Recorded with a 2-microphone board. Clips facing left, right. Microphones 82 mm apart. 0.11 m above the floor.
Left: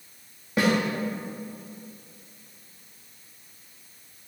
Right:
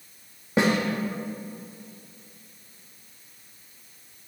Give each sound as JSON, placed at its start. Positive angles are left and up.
{"t": 0.6, "sound": "a snare drum", "side_deg": -25, "distance_m": 2.5}